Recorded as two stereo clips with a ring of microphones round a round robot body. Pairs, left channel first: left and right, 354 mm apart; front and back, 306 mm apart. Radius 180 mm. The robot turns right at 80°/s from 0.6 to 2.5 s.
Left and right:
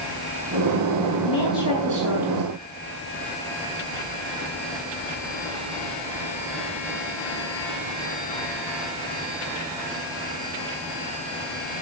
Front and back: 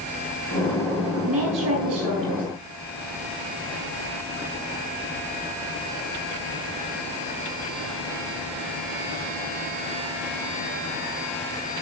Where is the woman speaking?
160° left, 8 m; by 2.5 s 105° right, 8 m.